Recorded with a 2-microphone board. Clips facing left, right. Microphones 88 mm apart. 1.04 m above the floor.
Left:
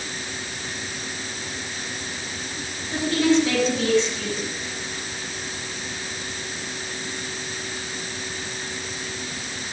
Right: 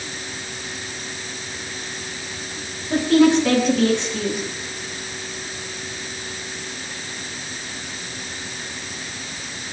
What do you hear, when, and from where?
2.9 s a woman speaking: 65° right (ahead or behind), 9.5 m